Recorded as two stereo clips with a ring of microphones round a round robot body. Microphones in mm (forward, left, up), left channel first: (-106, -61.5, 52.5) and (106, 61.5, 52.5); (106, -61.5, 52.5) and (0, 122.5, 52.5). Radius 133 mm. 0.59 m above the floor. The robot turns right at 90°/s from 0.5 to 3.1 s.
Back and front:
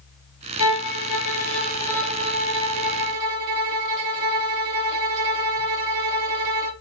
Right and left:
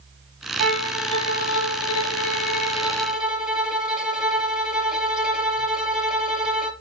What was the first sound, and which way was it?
A violin, 165° left.